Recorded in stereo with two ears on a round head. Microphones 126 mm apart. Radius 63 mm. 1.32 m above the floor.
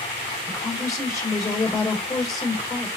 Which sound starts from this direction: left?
A woman speaking, at 0.5 s.